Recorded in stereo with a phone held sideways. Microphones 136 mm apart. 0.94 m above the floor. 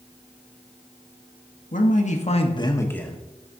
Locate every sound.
1.7 s a man speaking: 65° left (ahead or behind), 1.4 m; by 3.2 s centre (ahead or behind), 1.1 m